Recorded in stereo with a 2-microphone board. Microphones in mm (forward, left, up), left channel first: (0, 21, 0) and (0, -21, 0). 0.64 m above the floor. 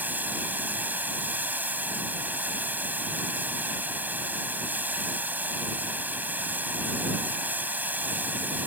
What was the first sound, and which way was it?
Running water, 50° right (ahead or behind).